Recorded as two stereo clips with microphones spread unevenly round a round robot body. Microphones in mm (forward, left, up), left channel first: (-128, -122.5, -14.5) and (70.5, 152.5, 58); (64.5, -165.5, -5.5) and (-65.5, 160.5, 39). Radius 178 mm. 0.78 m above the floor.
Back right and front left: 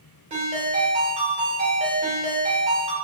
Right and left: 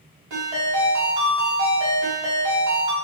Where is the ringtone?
125° left, 1.2 m.